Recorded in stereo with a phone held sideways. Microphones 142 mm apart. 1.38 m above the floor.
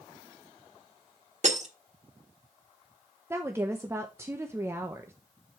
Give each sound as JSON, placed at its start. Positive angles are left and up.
{"t": 1.4, "sound": "breaking glass", "side_deg": -55, "distance_m": 1.7}
{"t": 3.3, "sound": "a woman speaking", "side_deg": -20, "distance_m": 0.9}